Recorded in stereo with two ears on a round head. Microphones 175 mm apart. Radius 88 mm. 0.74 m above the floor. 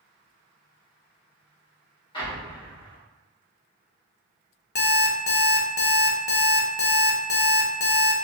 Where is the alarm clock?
60° left (ahead or behind), 0.6 m.